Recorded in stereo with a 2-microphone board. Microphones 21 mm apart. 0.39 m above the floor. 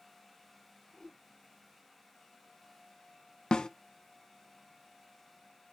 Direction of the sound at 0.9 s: 30° left (ahead or behind).